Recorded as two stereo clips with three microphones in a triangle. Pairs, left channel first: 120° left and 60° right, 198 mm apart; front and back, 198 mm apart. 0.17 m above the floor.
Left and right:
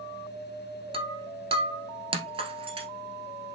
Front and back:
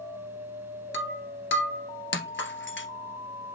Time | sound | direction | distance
0.9 | breaking glass | straight ahead | 1.7 m